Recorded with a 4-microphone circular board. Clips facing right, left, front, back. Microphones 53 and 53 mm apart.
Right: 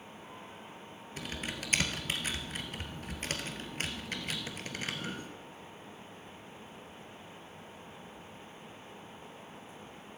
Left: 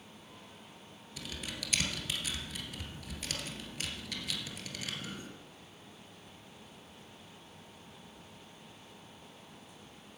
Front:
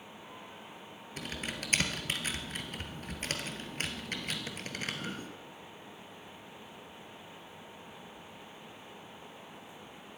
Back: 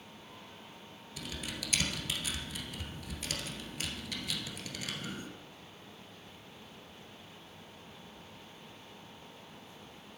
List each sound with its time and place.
1.2 s typing on a keyboard: 40° right, 2 m